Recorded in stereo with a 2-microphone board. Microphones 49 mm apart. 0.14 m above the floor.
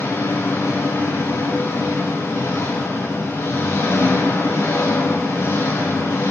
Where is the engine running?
70° left (ahead or behind), 5 m.